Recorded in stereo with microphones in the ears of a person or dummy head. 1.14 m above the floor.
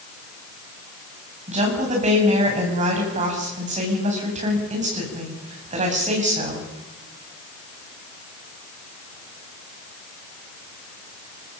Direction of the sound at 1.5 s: 35° right (ahead or behind).